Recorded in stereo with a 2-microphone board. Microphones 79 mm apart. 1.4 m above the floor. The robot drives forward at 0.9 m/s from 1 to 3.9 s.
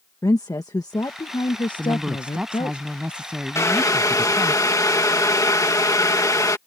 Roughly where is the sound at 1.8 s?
Centre.